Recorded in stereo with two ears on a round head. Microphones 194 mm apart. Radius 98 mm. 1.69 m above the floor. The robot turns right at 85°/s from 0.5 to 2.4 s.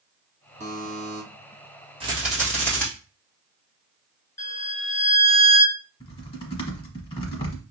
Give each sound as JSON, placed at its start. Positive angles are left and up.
{"t": 0.6, "sound": "a buzzer", "azimuth_deg": -130, "distance_m": 1.2}
{"t": 2.0, "sound": "a rattle", "azimuth_deg": -30, "distance_m": 1.8}
{"t": 4.4, "sound": "a violin", "side_deg": 15, "distance_m": 0.8}
{"t": 6.0, "sound": "typing on a keyboard", "side_deg": 25, "distance_m": 1.1}